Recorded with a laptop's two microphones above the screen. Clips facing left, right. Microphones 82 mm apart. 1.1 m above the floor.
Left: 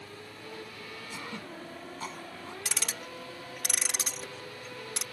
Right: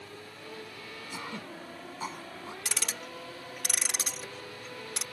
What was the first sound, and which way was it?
Throat clearing, 15° right (ahead or behind).